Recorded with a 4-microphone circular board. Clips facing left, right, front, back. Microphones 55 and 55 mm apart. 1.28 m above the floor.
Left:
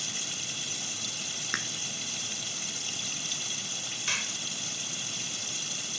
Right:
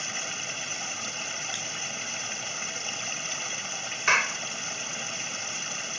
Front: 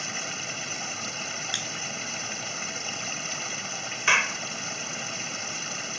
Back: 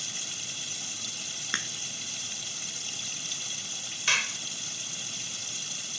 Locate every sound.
0.0 s running water: 45° right
1.5 s a crack: 120° left
4.1 s a clap: 60° right